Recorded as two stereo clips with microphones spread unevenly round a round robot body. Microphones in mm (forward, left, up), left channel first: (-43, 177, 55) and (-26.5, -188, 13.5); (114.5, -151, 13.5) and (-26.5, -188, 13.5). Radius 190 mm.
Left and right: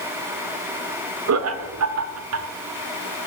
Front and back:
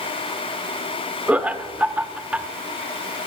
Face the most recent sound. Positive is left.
turn(degrees=-85)